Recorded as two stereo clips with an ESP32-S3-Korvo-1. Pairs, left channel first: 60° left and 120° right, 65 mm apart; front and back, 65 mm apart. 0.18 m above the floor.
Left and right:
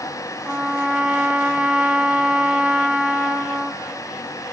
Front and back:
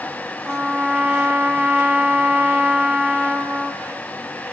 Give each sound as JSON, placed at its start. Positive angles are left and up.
{"t": 0.5, "sound": "a trumpet", "azimuth_deg": -165, "distance_m": 1.2}